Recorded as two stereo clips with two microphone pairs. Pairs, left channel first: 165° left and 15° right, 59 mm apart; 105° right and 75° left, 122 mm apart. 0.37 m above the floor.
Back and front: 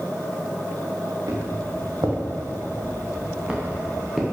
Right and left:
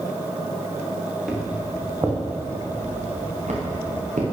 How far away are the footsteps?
About 3 m.